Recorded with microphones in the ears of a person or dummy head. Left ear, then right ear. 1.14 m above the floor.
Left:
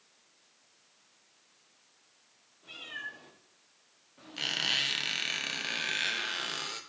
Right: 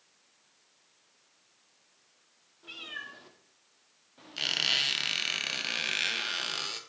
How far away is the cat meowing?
About 1.8 m.